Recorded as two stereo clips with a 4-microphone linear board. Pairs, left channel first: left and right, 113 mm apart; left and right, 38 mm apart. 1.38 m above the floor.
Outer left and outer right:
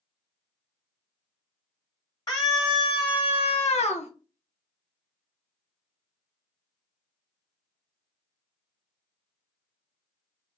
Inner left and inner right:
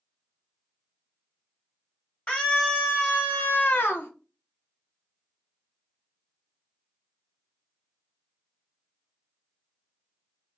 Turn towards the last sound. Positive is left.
turn(degrees=85)